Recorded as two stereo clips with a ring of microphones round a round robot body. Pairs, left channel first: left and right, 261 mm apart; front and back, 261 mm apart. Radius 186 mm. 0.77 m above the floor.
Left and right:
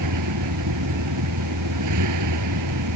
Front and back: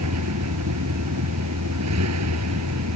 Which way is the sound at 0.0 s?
130° right.